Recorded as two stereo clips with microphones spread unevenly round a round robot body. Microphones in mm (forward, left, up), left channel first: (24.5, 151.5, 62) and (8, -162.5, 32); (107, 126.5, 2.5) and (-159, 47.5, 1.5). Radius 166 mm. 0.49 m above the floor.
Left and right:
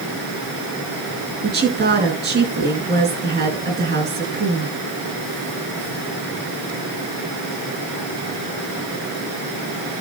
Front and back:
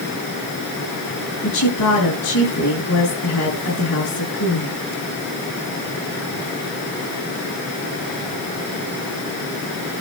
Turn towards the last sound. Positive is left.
turn(degrees=-35)